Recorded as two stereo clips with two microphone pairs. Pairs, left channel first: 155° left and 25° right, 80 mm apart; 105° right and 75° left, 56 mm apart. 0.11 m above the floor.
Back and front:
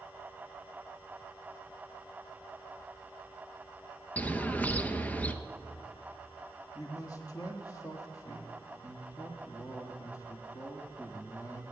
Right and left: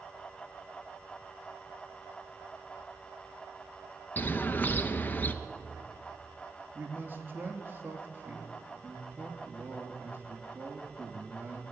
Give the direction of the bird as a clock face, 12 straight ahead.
5 o'clock.